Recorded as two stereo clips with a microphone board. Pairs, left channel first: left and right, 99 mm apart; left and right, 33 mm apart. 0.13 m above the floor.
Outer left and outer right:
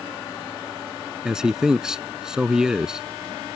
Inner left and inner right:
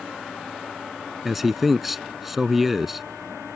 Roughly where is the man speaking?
Centre.